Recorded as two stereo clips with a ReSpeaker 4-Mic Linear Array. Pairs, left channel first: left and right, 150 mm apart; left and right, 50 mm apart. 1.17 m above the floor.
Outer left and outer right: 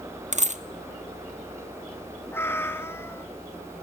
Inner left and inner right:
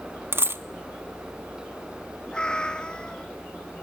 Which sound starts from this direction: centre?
A cat meowing, at 2.3 s.